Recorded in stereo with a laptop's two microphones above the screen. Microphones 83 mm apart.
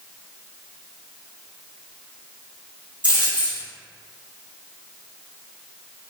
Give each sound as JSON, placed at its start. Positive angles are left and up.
{"t": 3.0, "sound": "a dropped coin", "side_deg": -20, "distance_m": 1.5}